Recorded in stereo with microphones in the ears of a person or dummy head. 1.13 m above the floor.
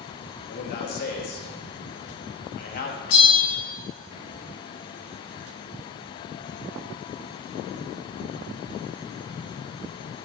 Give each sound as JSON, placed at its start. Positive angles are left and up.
{"t": 0.5, "sound": "a man speaking", "side_deg": 50, "distance_m": 1.6}
{"t": 3.1, "sound": "a bell", "side_deg": 70, "distance_m": 4.5}